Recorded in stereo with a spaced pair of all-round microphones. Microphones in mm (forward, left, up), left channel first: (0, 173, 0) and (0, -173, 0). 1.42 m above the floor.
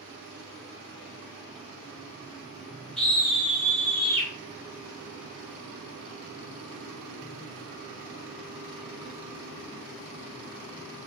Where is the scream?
Centre (ahead or behind), 1.3 m; by 4.3 s 30° left (ahead or behind), 1.5 m.